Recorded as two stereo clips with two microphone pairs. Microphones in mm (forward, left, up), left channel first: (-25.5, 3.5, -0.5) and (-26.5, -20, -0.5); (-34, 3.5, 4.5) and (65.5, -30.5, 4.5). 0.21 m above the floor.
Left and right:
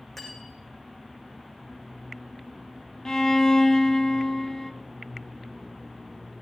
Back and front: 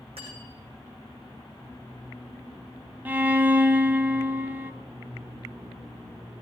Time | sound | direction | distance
0.2 | cutlery clinking | 5° left | 6.5 m
3.0 | a violin | 40° left | 1.1 m